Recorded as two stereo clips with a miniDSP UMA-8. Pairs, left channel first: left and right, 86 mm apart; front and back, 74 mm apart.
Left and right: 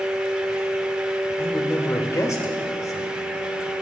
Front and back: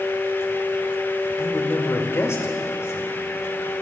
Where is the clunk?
No clunk in this recording.